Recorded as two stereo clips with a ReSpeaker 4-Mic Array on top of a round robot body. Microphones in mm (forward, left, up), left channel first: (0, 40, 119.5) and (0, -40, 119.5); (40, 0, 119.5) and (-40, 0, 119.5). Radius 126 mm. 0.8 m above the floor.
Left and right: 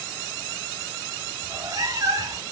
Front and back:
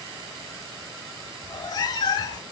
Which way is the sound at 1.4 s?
40° right.